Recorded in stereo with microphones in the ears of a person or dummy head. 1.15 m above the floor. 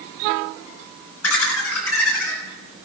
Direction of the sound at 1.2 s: 85° left.